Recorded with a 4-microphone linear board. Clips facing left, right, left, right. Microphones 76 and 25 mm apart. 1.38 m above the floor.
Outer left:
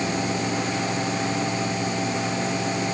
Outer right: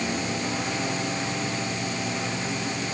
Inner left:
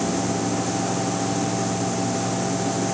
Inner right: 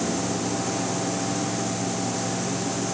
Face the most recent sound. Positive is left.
No sound to turn to.